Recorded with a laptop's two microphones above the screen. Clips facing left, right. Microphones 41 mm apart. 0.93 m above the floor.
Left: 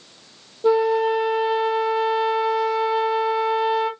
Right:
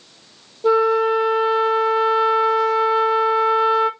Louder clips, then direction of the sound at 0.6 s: Right 2 dB; 5° left (ahead or behind).